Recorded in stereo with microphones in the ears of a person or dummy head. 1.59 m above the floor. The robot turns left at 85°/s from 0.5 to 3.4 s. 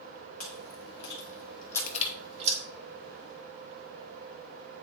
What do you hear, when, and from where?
0.4 s chewing: 50° left (ahead or behind), 1.6 m; by 2.6 s 50° right (ahead or behind), 1.6 m
1.8 s crushing: 55° left (ahead or behind), 1.3 m; by 2.1 s 25° left (ahead or behind), 1.3 m